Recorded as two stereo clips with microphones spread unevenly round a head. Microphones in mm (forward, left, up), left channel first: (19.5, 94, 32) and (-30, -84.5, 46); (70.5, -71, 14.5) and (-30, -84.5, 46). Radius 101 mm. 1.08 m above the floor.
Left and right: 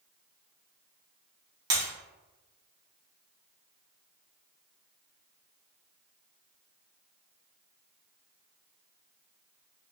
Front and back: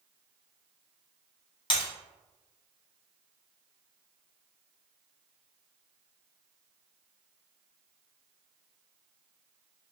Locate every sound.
1.7 s breaking glass: 35° right, 1.6 m